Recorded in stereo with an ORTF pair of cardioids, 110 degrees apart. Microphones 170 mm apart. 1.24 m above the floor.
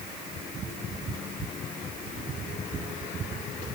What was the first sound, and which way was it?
Only background noise.